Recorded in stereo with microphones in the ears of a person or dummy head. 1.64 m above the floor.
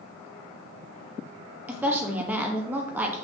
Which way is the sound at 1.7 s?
5° right (ahead or behind).